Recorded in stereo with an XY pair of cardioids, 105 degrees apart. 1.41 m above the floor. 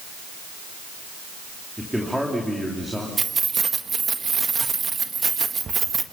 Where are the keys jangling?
35° right, 1.4 m.